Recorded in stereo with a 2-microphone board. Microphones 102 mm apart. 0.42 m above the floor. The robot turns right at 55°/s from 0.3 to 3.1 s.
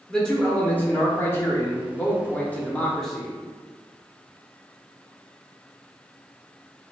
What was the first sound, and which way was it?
A man speaking, 10° left (ahead or behind).